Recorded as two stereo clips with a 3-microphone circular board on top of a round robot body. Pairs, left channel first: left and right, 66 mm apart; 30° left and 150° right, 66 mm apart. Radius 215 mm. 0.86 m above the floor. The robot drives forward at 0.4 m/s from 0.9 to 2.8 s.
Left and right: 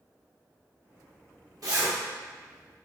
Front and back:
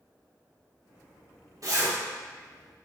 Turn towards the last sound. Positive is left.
turn(degrees=-130)